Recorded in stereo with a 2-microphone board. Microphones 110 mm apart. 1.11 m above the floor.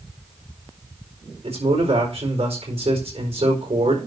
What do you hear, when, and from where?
1.4 s a man speaking: 65° right (ahead or behind), 4.5 m